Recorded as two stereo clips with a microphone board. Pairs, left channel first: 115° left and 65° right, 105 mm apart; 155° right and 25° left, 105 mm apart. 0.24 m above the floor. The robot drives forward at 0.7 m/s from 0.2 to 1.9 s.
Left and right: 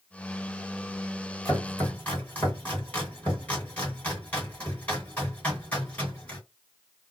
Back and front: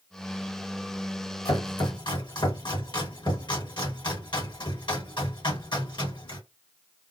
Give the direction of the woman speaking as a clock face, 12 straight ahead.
No woman speaking in this recording.